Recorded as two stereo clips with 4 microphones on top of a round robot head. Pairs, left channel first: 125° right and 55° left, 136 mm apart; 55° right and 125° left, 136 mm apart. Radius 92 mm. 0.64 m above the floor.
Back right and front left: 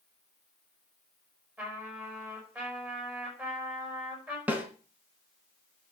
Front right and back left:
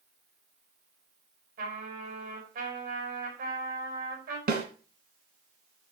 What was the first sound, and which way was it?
A trumpet, 135° left.